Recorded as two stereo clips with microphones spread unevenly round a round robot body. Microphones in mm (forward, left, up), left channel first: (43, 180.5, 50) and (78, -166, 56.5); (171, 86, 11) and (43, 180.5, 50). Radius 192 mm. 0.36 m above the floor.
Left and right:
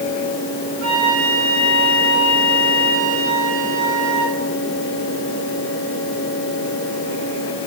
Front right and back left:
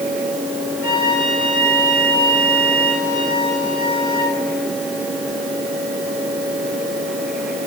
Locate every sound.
0.8 s a flute: 95° right, 9.5 m